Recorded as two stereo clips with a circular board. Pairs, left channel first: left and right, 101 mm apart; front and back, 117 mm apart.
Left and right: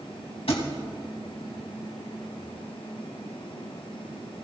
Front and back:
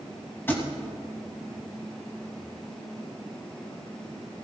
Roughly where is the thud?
Left.